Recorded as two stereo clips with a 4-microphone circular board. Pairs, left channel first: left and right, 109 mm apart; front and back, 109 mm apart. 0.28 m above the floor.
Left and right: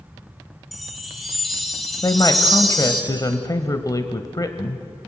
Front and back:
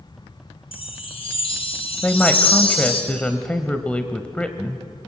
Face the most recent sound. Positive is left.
turn(degrees=70)